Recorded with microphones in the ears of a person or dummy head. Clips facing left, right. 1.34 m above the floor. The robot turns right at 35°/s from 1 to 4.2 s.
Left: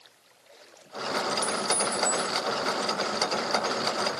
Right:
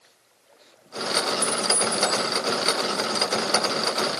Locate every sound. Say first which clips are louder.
1.4 s a clink: right 3 dB; 5° right, 0.8 m; by 2.3 s 25° left, 0.8 m